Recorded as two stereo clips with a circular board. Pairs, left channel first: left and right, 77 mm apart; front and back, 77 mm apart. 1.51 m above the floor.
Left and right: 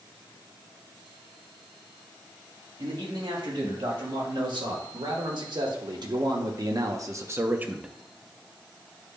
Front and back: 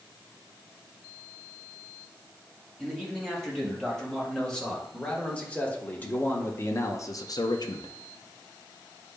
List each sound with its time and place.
2.8 s a man speaking: 85° right, 3 m; by 7.9 s 10° right, 0.7 m